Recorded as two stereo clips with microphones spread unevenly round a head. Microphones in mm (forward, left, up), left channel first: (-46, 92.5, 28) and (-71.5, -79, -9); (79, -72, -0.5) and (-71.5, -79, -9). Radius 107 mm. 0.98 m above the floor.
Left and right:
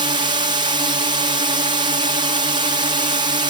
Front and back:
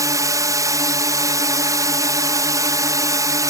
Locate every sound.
0.0 s a drone: 125° right